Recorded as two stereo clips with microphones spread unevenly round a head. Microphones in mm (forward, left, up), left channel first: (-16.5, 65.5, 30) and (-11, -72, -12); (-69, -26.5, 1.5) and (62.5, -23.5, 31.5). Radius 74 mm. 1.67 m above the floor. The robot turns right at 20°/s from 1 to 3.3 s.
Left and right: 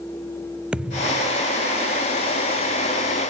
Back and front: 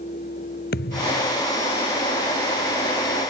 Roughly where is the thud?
Behind.